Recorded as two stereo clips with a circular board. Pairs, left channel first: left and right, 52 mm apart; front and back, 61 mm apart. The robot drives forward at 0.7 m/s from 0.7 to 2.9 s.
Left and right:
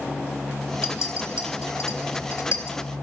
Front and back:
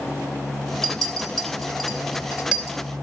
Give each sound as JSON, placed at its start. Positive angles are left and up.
{"t": 0.8, "sound": "a clink", "azimuth_deg": 80, "distance_m": 3.0}